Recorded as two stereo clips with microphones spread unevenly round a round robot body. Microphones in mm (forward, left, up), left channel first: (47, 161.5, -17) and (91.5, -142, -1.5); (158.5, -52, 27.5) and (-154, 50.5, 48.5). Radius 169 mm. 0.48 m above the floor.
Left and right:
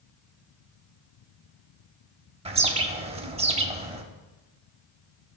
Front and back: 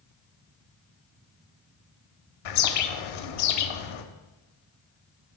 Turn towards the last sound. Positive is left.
turn(degrees=-10)